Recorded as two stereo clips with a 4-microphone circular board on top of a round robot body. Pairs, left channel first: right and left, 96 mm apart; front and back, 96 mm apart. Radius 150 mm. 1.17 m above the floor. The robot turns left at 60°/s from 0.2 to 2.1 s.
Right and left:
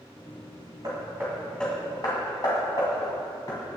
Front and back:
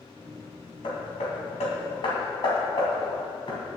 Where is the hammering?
35° left, 2 m; by 3.6 s 40° right, 2 m.